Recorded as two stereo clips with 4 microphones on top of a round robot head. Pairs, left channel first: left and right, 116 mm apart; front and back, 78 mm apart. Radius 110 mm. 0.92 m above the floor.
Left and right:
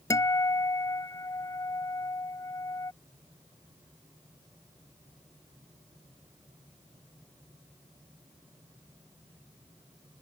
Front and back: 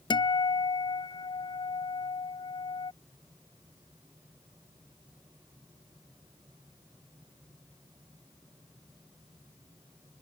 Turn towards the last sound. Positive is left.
turn(degrees=25)